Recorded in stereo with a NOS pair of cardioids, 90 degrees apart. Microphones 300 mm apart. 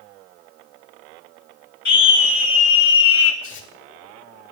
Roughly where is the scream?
Ahead left.